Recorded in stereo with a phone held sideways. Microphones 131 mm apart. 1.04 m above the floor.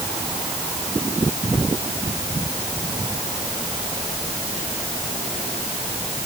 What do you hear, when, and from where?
Only background noise.